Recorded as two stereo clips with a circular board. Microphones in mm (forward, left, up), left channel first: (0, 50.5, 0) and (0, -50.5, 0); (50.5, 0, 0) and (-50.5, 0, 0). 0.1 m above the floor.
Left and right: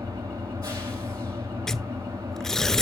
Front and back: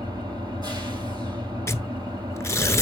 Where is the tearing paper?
10° left, 0.5 m.